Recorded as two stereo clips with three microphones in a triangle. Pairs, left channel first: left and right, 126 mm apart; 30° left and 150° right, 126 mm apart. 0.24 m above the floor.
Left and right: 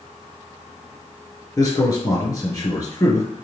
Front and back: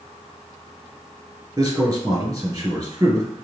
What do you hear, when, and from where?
1.6 s a man speaking: 150° left, 3.5 m